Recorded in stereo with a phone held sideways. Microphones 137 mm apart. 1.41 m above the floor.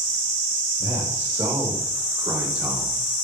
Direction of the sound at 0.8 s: 35° right (ahead or behind).